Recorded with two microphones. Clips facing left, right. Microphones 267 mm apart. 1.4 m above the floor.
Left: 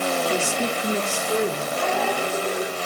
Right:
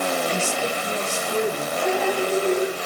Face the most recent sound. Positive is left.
turn(degrees=60)  # may be behind; listen again after turning